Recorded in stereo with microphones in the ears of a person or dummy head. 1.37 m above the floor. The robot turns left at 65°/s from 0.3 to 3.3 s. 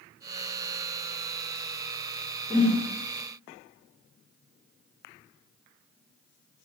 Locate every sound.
2.5 s a whoosh: 25° left (ahead or behind), 0.5 m; by 2.8 s 45° left (ahead or behind), 0.5 m